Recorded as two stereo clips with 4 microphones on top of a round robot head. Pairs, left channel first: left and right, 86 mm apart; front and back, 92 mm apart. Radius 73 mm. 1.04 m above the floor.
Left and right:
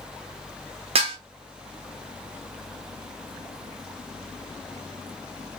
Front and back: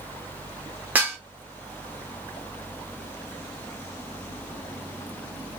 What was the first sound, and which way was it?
Dishes clattering, 100° right.